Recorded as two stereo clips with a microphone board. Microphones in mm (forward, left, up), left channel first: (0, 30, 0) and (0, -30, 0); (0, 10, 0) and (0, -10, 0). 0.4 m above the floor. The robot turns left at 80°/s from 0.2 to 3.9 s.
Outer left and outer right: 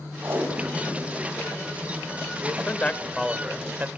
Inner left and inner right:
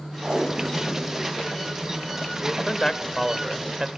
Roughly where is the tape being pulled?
Behind right.